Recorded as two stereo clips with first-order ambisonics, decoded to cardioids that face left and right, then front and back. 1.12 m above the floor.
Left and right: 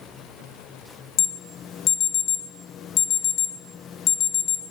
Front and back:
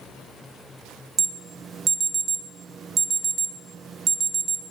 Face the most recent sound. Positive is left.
turn(degrees=125)